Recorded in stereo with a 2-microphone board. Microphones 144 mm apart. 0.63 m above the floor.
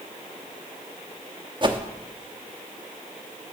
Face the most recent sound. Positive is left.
turn(degrees=-35)  # may be behind; listen again after turning